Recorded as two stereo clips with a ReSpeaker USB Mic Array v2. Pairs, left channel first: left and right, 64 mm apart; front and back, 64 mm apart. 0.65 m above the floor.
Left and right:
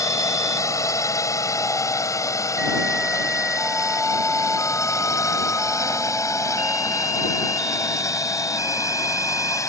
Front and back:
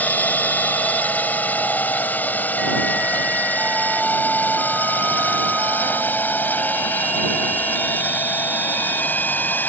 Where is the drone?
60° left.